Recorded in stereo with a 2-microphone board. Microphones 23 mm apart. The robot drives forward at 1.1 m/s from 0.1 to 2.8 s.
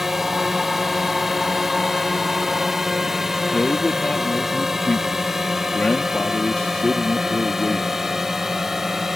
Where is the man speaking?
50° left (ahead or behind).